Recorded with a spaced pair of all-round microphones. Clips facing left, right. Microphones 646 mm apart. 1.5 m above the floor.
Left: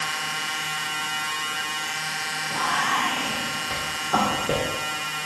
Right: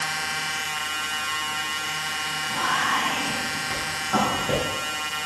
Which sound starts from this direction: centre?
Whispering, at 2.5 s.